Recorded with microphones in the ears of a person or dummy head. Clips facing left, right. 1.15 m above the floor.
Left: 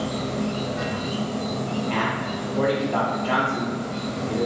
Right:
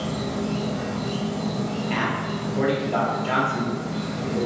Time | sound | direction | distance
0.0 | an insect | 25° left (ahead or behind) | 0.9 m
1.9 | a man speaking | 20° right (ahead or behind) | 0.8 m